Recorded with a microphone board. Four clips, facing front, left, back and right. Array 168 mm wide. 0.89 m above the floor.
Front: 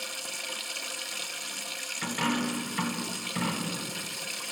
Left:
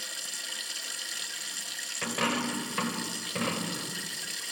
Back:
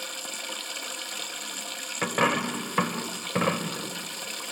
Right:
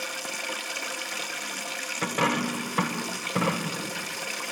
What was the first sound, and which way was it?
Running water, 110° right.